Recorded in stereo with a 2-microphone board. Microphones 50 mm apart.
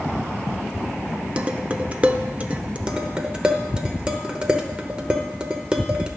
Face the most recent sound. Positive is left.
turn(degrees=-20)  # may be behind; listen again after turning